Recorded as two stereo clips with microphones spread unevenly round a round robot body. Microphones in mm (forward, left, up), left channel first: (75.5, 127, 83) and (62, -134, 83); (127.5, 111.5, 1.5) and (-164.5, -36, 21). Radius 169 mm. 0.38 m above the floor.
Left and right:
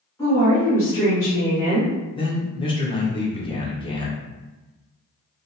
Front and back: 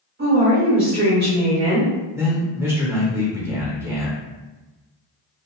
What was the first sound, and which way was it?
A woman speaking, 165° left.